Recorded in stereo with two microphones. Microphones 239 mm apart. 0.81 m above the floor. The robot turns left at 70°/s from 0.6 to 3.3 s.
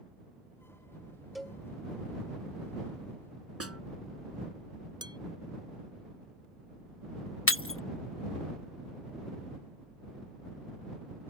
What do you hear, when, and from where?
1.4 s a cowbell: centre (ahead or behind); by 1.6 s 10° left (ahead or behind)
3.6 s a snare drum: 75° right (ahead or behind)
5.0 s dishes clattering: 20° right (ahead or behind)
7.5 s breaking glass: 65° left (ahead or behind)